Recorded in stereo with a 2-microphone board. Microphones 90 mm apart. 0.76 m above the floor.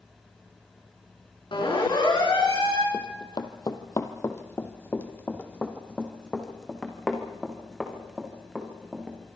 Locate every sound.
1.5 s a siren: 65° left (ahead or behind), 6.5 m
2.9 s running footsteps: 55° left (ahead or behind), 1.6 m; by 9.2 s 5° right (ahead or behind), 4.5 m